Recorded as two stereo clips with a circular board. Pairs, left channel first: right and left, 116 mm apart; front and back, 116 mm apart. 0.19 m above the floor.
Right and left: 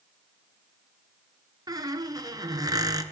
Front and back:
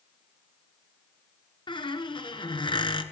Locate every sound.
1.7 s a squeak: 40° left, 1.7 m